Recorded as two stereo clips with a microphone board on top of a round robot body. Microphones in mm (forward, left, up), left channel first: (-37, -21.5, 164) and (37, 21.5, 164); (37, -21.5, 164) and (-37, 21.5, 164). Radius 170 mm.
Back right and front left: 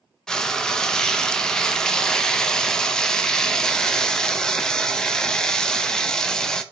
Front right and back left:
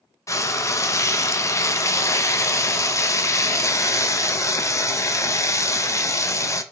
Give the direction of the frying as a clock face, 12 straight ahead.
2 o'clock.